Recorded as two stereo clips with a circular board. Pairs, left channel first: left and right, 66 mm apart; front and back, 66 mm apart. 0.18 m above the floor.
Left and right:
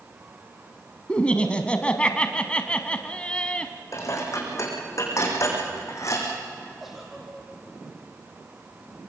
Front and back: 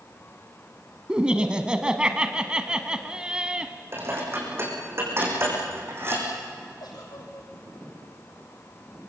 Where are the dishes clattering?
130° left, 6.5 m.